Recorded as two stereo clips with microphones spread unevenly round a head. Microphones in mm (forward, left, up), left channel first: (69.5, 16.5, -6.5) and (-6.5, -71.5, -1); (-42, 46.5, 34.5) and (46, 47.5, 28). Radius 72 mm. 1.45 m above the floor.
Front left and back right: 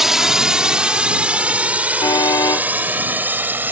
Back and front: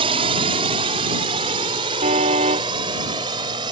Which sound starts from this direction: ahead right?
A drone, at 0.0 s.